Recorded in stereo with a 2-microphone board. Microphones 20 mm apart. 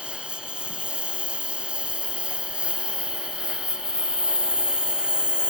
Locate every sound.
0.0 s a lawn mower: 65° right (ahead or behind); by 5.5 s 50° right (ahead or behind)